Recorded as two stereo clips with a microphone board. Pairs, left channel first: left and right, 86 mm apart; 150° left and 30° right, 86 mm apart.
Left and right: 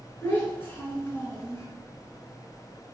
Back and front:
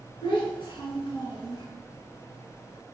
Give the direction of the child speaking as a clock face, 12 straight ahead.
7 o'clock.